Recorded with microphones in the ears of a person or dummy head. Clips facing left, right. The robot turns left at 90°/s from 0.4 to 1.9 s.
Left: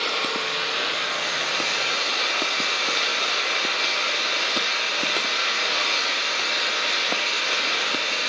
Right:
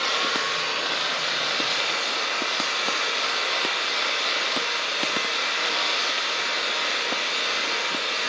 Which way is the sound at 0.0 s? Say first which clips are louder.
Left 1 dB; 170° right.